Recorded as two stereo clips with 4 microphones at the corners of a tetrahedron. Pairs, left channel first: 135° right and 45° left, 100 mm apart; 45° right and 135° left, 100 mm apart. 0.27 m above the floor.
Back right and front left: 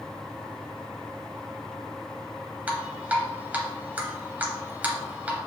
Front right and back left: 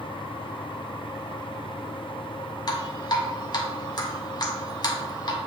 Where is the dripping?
25° right, 0.8 m.